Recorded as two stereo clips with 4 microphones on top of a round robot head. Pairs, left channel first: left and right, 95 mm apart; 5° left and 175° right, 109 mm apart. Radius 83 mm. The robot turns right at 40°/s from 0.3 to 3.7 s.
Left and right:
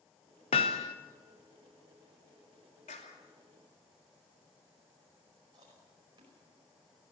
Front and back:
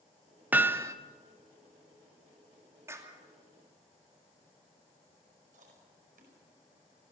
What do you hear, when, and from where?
0.5 s hammering: 115° left, 0.8 m; by 0.9 s 130° left, 0.8 m
2.9 s a clap: 120° left, 2.5 m; by 3.2 s 130° left, 2.5 m
5.5 s chewing: 155° right, 5 m